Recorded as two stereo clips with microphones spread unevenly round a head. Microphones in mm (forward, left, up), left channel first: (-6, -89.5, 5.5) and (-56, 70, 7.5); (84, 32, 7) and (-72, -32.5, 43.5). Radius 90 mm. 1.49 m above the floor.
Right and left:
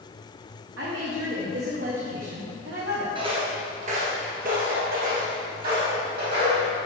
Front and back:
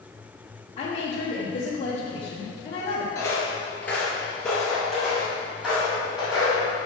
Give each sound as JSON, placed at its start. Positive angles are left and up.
{"t": 0.8, "sound": "a woman speaking", "azimuth_deg": 80, "distance_m": 1.1}
{"t": 3.1, "sound": "footsteps", "azimuth_deg": 105, "distance_m": 1.6}